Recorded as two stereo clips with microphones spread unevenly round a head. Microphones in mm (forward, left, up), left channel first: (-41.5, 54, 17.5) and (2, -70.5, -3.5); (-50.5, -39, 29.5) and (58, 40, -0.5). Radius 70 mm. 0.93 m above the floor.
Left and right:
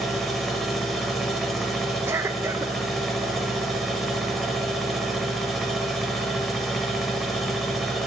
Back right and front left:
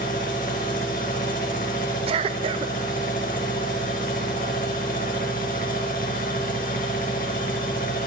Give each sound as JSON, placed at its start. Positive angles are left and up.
{"t": 0.0, "sound": "a machine running", "azimuth_deg": -165, "distance_m": 1.5}
{"t": 2.1, "sound": "a cough", "azimuth_deg": -5, "distance_m": 0.6}